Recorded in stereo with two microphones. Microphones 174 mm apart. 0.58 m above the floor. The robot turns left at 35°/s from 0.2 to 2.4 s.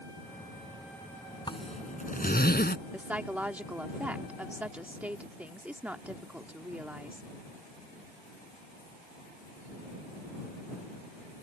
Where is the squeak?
No squeak in this recording.